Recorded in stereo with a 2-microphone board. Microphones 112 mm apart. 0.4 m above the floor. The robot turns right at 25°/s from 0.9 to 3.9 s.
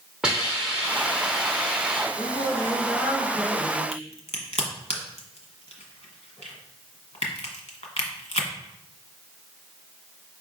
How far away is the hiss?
About 1.1 m.